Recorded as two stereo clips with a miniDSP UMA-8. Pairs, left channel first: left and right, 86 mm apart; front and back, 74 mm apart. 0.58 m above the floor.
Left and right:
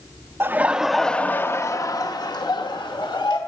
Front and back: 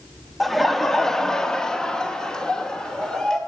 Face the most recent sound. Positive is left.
turn(degrees=80)